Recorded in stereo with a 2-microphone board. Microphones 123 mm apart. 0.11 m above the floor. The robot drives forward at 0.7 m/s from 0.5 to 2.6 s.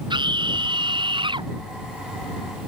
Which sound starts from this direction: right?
A scream, at 0.1 s.